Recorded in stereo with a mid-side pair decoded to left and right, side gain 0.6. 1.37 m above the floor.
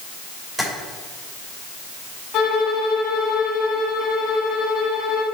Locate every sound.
0.6 s tapping: straight ahead, 3 m
2.3 s a violin: 65° left, 1.6 m